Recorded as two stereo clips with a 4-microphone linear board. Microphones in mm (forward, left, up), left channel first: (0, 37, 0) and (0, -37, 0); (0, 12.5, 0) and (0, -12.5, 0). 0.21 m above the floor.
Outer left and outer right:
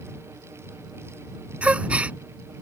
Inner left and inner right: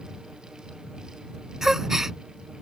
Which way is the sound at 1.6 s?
15° right (ahead or behind).